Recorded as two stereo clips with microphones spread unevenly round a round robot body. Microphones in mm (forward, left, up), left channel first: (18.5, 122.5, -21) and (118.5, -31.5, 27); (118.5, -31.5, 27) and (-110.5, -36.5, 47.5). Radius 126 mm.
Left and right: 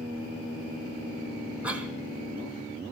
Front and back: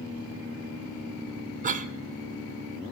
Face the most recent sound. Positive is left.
turn(degrees=-165)